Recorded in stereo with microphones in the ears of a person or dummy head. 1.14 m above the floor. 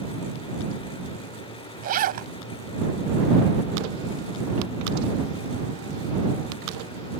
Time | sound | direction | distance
1.8 | a zipper | 50° right (ahead or behind) | ?